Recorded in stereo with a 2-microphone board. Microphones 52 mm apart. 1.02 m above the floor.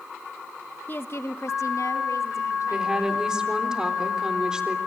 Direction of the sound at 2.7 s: 15° right (ahead or behind).